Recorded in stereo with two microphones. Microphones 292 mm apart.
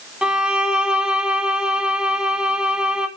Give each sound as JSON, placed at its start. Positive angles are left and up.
{"t": 0.2, "sound": "a violin", "side_deg": -5, "distance_m": 0.6}